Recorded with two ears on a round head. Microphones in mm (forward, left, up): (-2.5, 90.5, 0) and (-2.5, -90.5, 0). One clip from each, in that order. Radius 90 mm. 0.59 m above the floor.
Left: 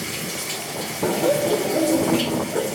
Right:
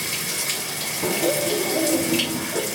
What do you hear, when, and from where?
0.0 s running water: 45° right (ahead or behind), 2.5 m
1.0 s laughter: 20° left (ahead or behind), 0.7 m